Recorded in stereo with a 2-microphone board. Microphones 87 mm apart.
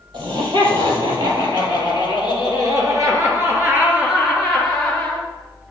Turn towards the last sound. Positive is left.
turn(degrees=10)  # may be behind; listen again after turning